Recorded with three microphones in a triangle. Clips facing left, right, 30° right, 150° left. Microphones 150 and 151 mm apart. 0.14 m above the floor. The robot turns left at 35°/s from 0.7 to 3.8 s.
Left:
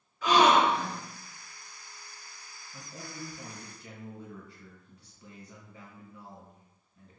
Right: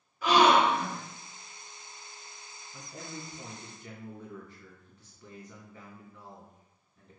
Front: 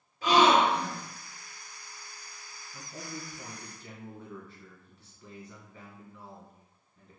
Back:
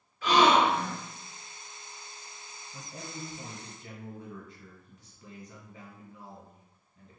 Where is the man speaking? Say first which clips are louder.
Right 1 dB, front 1 dB; 170° left, 1.0 m; by 7.2 s 130° left, 1.0 m.